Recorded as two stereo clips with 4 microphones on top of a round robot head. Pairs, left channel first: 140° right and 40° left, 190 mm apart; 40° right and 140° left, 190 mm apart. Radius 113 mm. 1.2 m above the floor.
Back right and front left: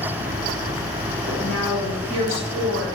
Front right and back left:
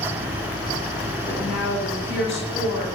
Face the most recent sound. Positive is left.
turn(degrees=-5)